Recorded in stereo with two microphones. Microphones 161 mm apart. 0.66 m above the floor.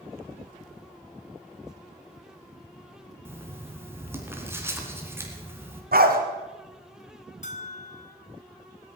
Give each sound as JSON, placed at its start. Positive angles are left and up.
{"t": 3.2, "sound": "writing", "side_deg": -15, "distance_m": 2.5}
{"t": 5.9, "sound": "a dog barking", "side_deg": -70, "distance_m": 1.9}
{"t": 7.4, "sound": "a bell", "side_deg": 50, "distance_m": 1.3}